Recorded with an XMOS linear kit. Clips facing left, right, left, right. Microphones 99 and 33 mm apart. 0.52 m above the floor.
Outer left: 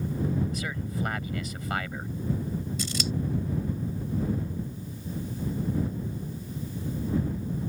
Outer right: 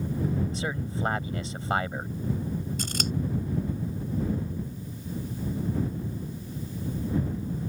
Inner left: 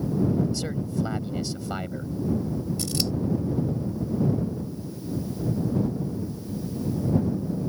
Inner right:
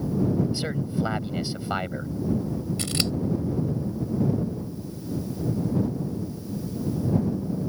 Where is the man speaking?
30° right (ahead or behind).